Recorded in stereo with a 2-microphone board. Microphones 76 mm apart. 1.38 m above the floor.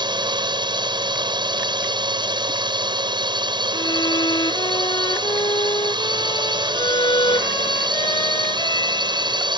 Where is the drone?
70° right (ahead or behind).